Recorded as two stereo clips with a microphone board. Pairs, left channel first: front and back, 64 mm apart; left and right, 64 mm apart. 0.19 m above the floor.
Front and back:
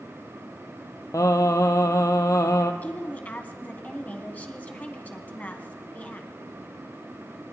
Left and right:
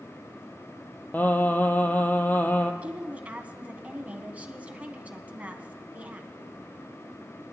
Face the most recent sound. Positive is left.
turn(degrees=-45)